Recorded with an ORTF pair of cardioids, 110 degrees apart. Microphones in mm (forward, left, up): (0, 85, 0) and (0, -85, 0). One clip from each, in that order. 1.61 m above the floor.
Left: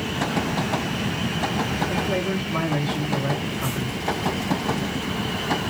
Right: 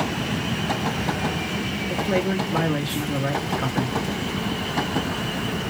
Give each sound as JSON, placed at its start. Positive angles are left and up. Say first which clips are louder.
{"t": 1.9, "sound": "a man speaking", "louder": "right 1 dB", "azimuth_deg": -25, "distance_m": 1.1}